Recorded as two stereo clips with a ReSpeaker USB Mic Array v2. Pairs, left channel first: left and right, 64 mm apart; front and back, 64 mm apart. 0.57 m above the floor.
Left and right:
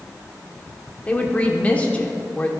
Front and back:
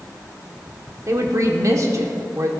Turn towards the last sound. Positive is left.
turn(degrees=155)